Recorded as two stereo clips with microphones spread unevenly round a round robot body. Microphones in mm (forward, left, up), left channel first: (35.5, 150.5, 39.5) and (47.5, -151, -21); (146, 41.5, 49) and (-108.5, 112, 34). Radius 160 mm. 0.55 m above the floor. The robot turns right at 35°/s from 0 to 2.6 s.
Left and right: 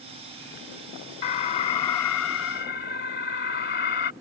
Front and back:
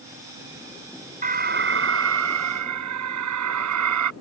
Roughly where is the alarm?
Left.